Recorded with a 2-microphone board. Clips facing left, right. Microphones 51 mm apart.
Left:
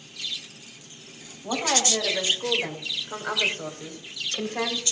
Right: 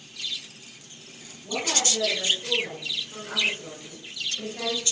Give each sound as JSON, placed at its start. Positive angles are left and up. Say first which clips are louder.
{"t": 1.4, "sound": "a woman speaking", "louder": "left 3 dB", "side_deg": 65, "distance_m": 7.0}